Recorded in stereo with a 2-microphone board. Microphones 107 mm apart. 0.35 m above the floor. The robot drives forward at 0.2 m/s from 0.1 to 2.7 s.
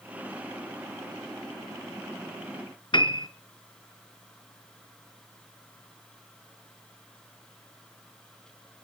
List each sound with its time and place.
2.9 s a piano: 50° left (ahead or behind), 0.8 m